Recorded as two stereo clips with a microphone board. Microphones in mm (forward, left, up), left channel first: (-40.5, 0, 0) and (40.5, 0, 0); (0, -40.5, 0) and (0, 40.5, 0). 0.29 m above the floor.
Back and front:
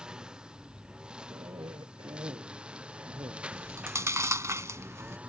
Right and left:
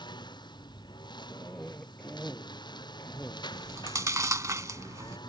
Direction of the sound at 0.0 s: 80° right.